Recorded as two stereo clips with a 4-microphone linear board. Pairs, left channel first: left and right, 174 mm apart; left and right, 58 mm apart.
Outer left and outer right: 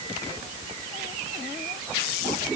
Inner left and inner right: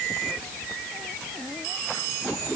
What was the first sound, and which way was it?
Only background noise.